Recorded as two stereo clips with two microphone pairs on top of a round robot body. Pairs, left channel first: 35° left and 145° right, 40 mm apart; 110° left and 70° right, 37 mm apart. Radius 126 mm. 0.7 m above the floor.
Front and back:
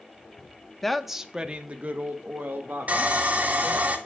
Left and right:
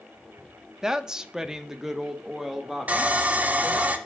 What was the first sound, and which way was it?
A woman speaking, 40° right.